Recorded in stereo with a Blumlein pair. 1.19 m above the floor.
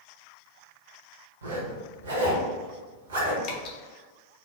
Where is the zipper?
65° right, 0.9 m.